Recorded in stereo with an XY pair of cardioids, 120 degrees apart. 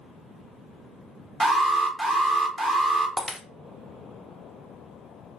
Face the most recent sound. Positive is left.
turn(degrees=-10)